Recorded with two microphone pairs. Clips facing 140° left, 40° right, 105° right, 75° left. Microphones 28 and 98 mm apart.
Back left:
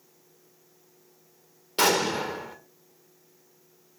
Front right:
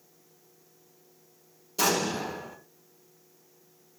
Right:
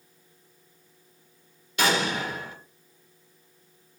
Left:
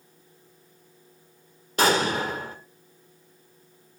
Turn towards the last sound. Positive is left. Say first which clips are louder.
# back left 4 dB, left 3 dB
turn(degrees=120)